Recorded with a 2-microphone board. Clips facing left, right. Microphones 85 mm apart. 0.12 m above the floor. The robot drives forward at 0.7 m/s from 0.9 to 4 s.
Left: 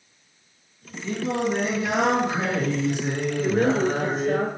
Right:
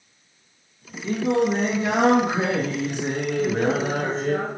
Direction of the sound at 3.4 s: 10° left (ahead or behind).